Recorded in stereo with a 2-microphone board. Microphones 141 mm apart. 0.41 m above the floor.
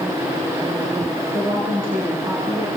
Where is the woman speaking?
20° right (ahead or behind), 6 m.